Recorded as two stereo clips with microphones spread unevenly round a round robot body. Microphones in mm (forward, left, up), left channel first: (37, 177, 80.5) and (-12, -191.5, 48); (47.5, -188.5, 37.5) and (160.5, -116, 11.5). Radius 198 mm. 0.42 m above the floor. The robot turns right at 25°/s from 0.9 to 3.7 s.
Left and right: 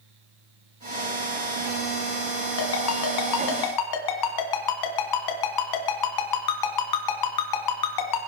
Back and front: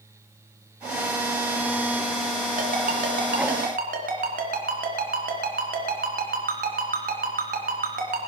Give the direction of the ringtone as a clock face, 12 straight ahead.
11 o'clock.